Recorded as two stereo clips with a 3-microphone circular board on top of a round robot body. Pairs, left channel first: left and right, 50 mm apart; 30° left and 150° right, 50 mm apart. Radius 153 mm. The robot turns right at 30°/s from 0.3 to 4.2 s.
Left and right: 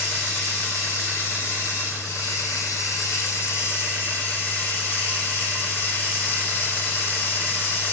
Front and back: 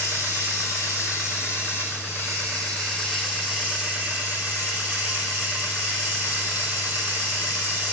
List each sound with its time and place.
0.0 s running water: 30° left, 5 m; by 7.9 s 145° left, 5 m